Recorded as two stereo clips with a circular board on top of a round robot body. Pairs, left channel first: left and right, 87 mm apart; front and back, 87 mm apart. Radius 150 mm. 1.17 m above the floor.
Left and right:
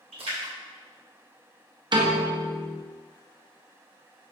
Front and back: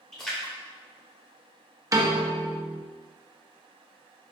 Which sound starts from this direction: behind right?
A piano, at 1.9 s.